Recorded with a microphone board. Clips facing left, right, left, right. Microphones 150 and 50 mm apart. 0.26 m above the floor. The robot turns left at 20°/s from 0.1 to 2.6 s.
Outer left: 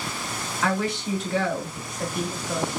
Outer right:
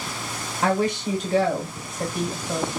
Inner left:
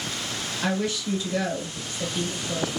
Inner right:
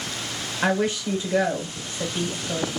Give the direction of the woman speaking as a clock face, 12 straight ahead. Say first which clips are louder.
Outer right 4 dB, inner right 4 dB; 4 o'clock.